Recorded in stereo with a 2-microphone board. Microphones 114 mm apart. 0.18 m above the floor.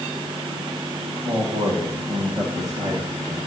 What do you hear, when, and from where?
1.2 s a man speaking: 30° right (ahead or behind), 10 m